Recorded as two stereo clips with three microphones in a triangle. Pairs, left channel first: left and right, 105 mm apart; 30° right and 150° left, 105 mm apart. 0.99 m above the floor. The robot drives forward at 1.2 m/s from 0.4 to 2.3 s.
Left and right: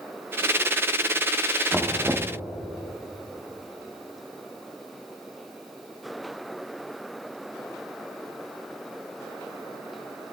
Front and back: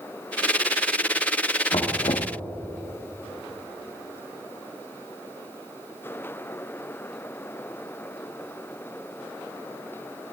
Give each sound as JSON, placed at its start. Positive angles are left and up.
{"t": 1.7, "sound": "knocking", "azimuth_deg": -10, "distance_m": 1.1}